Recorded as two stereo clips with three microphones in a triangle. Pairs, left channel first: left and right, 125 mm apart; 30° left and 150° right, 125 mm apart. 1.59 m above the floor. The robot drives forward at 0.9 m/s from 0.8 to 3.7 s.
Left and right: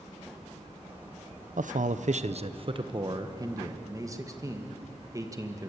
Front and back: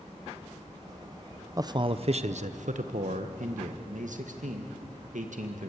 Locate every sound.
1.6 s a man speaking: 85° right, 0.9 m; by 5.7 s 155° right, 2 m